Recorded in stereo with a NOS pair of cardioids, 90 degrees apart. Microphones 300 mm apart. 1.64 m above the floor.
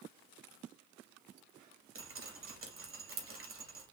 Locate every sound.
1.9 s dripping: 50° right, 2 m